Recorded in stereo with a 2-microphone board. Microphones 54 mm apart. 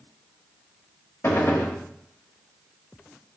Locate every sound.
1.2 s a gunshot: 50° left (ahead or behind), 0.6 m